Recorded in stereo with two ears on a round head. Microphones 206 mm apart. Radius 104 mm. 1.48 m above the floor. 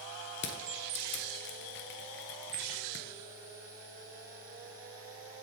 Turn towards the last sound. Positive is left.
turn(degrees=50)  # may be behind; listen again after turning